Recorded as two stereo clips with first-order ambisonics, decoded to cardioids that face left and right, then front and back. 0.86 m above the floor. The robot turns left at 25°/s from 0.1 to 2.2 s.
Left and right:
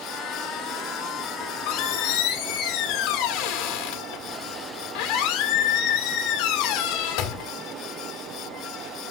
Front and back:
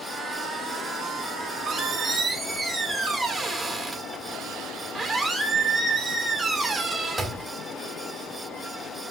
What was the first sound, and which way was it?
A squeak, 120° left.